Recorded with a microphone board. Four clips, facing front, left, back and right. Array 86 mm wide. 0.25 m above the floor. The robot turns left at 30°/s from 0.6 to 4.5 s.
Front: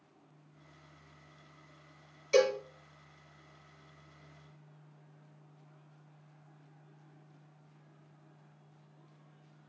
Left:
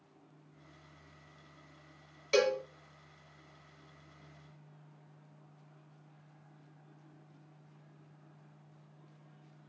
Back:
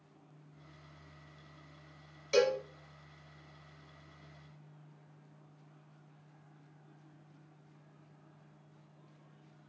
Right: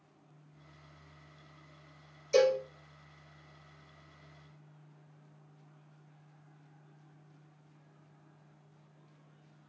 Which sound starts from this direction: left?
A cowbell, at 2.3 s.